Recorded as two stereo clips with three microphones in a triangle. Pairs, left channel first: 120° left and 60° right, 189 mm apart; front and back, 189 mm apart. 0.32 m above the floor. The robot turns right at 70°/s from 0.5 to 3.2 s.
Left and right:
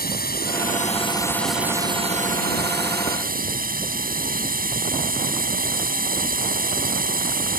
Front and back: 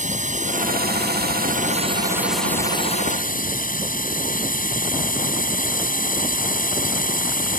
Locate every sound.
0.0 s a drone: 140° left; by 7.6 s 30° right